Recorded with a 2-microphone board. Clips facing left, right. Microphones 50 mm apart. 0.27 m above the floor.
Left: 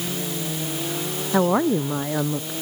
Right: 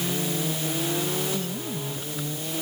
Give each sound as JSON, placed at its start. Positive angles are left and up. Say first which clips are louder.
{"t": 1.3, "sound": "a woman speaking", "louder": "left 12 dB", "side_deg": 80}